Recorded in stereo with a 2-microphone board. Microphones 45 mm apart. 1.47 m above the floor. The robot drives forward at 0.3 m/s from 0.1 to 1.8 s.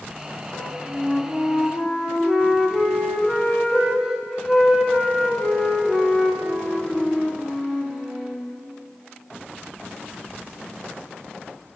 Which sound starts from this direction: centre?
A flute, at 0.5 s.